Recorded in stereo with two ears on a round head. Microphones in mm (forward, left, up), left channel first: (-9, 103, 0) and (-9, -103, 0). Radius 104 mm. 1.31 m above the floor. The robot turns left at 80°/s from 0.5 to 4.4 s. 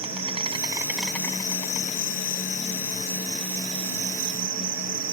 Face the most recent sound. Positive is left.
turn(degrees=-85)